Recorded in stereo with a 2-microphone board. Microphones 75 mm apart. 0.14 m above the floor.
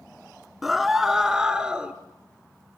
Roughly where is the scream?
Centre.